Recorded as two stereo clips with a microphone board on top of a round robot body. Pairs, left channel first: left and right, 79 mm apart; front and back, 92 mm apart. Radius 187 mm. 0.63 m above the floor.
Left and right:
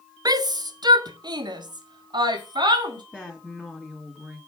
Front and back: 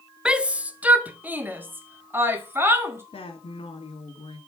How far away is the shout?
About 1.0 m.